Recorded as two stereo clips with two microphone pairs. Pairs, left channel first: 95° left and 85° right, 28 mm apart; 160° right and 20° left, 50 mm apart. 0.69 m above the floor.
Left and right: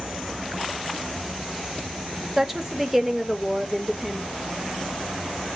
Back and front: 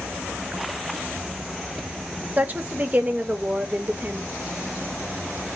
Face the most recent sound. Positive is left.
turn(degrees=-15)